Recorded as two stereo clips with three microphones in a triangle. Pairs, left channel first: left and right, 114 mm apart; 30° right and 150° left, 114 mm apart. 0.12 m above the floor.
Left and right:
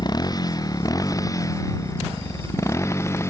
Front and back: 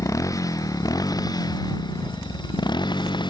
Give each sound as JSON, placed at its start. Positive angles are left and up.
{"t": 0.0, "sound": "a motorcycle", "azimuth_deg": 35}